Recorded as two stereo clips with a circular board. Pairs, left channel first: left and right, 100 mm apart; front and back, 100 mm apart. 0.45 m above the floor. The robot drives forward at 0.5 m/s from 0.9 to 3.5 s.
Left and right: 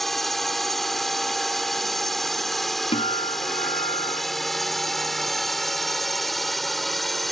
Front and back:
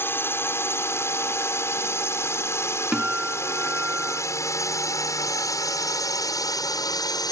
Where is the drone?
5° left; by 7.3 s straight ahead.